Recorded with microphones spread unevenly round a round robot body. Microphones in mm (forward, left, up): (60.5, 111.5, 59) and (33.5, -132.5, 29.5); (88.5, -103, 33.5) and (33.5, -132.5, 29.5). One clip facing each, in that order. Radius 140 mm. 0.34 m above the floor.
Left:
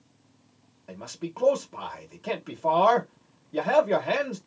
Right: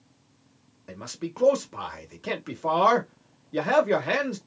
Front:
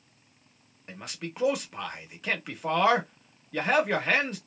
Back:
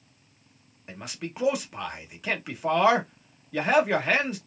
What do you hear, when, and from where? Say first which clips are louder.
0.9 s a man speaking: right 1 dB, back 2 dB; 70° right, 1.2 m